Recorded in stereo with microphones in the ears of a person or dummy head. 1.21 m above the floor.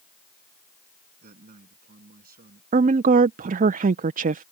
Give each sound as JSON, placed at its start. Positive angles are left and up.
{"t": 1.2, "sound": "a man speaking", "side_deg": -50}
{"t": 2.7, "sound": "a woman speaking", "side_deg": -40}